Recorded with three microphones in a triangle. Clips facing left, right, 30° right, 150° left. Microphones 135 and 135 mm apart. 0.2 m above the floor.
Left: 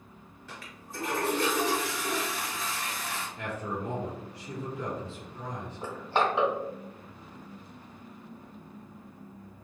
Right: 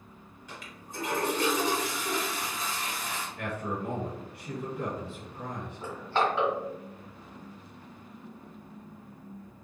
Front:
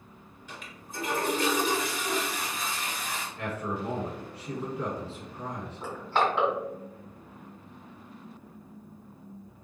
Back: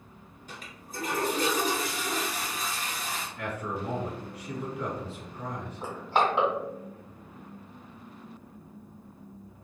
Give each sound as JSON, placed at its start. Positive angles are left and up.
{"t": 0.5, "sound": "a toilet flushing", "azimuth_deg": -160, "distance_m": 1.3}
{"t": 3.4, "sound": "a man speaking", "azimuth_deg": -85, "distance_m": 1.8}
{"t": 5.8, "sound": "crushing", "azimuth_deg": 115, "distance_m": 1.6}